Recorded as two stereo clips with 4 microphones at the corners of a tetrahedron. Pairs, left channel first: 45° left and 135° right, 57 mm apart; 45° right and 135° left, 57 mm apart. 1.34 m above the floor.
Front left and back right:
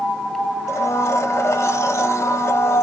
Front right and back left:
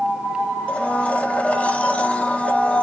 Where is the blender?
20° left, 0.7 m.